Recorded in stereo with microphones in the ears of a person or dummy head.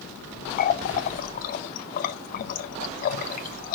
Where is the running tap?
50° left (ahead or behind), 0.7 m.